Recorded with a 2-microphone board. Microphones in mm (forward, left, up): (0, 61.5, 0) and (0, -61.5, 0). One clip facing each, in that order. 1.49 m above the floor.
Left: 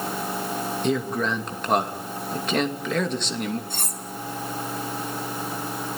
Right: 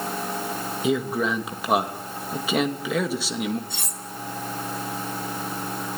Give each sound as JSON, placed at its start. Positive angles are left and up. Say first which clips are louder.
{"t": 0.8, "sound": "a man speaking", "louder": "right 2 dB", "side_deg": -5, "distance_m": 2.5}
{"t": 3.7, "sound": "cutlery clinking", "louder": "left 2 dB", "side_deg": 50, "distance_m": 2.5}